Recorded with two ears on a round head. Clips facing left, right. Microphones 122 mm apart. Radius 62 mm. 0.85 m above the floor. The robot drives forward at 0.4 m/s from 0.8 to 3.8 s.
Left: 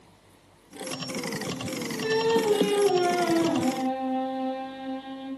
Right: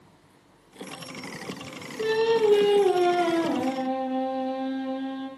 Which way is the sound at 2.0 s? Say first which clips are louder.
Right 2 dB; 50° right (ahead or behind).